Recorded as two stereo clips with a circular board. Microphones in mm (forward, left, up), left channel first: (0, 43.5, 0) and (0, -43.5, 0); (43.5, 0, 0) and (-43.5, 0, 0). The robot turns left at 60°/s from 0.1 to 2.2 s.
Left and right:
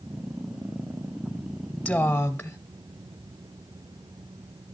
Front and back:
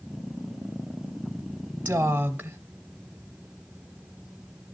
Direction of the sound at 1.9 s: 160° left.